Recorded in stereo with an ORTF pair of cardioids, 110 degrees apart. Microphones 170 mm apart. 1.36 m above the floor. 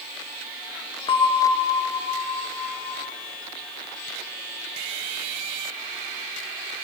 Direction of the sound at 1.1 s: 30° left.